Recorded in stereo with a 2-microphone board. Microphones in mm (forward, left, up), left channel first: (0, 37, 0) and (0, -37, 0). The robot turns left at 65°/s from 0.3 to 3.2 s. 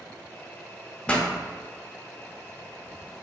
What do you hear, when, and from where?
1.1 s a pop: 20° left (ahead or behind), 0.6 m; by 1.3 s 10° left (ahead or behind), 0.6 m